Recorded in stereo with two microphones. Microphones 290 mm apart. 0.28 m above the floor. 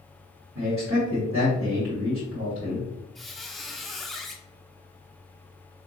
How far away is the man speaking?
About 1.6 m.